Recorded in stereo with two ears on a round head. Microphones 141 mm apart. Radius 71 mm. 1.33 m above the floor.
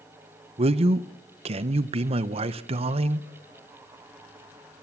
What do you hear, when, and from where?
0.6 s a man speaking: 40° right (ahead or behind), 0.9 m